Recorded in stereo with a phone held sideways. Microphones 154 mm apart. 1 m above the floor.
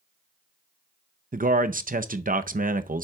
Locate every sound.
1.3 s a man speaking: 65° right (ahead or behind), 0.6 m